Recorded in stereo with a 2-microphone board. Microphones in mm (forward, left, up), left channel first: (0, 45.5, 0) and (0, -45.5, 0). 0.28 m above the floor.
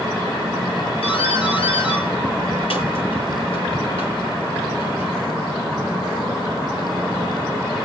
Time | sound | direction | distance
1.0 | a doorbell | 70° left (ahead or behind) | 7.5 m